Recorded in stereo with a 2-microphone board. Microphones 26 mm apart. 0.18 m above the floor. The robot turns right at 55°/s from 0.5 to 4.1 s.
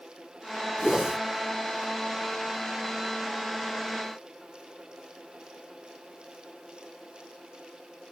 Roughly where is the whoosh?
Centre.